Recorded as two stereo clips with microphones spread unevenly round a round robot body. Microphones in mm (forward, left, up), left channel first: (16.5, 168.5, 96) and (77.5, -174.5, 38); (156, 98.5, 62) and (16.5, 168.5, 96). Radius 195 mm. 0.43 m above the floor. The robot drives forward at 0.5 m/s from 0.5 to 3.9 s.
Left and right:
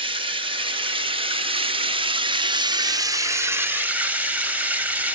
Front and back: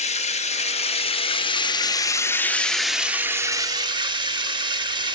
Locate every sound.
0.0 s running water: 15° right, 1.5 m; by 5.2 s 145° right, 1.0 m